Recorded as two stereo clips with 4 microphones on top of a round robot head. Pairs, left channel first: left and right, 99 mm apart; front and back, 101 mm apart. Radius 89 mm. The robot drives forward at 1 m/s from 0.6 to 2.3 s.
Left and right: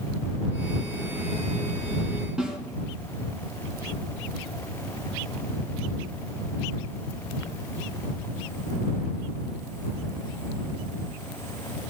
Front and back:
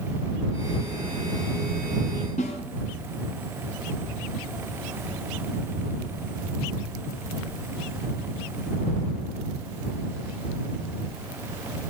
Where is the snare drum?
10° right, 2 m.